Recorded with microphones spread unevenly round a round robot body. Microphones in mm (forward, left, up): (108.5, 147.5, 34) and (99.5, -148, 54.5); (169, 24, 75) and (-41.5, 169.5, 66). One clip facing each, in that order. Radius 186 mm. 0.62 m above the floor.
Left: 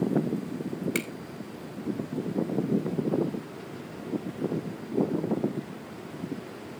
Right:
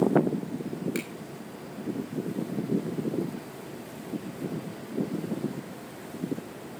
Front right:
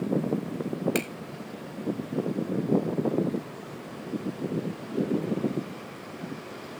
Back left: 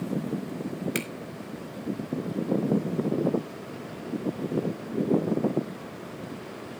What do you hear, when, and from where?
0.9 s a finger snap: 45° left, 3 m